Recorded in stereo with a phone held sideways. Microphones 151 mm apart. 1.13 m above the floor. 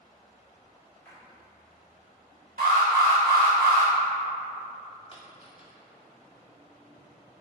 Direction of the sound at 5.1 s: 40° left (ahead or behind).